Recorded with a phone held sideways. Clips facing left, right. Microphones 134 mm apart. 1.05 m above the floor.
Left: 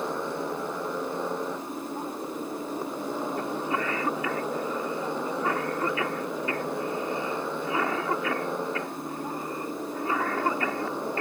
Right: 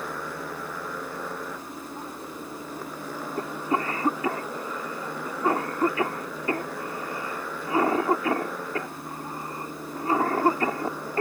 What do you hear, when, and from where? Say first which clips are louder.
0.0 s a motorcycle: left 4 dB; 25° left (ahead or behind)
3.4 s a cough: right 1 dB; 35° right (ahead or behind)